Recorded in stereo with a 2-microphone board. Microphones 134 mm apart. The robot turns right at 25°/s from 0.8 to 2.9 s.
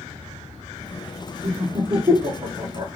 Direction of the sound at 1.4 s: 35° right (ahead or behind).